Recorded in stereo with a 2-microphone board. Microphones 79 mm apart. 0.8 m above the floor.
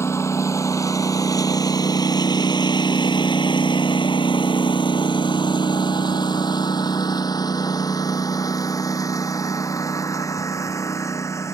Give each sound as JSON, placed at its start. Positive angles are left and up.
{"t": 0.0, "sound": "a lawn mower", "side_deg": 35}